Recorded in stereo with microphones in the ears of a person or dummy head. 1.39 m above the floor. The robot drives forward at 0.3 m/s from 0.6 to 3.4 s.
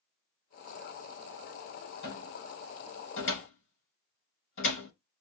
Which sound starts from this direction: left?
A cupboard door, at 2.0 s.